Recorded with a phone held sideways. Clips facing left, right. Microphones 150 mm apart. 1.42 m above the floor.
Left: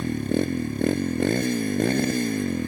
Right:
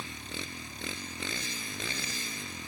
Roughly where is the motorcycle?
Left.